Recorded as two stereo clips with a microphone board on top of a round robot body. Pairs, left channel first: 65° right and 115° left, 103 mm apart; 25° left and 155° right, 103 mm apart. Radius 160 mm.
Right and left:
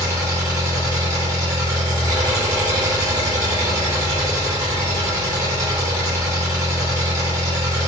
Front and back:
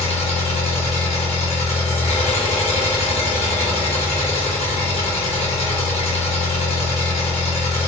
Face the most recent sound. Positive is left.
turn(degrees=50)